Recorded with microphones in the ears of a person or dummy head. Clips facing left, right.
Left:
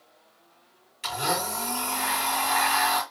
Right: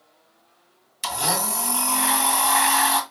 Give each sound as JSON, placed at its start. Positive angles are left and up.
{"t": 1.0, "sound": "a blender", "side_deg": -60, "distance_m": 1.7}